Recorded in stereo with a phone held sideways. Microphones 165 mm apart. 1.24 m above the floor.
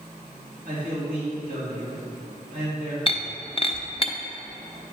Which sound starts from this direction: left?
Breaking glass, at 3.1 s.